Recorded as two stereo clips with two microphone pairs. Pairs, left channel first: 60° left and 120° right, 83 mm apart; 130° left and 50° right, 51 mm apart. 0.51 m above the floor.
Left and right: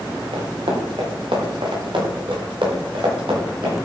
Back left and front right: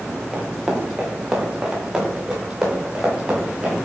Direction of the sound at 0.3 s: 120° right.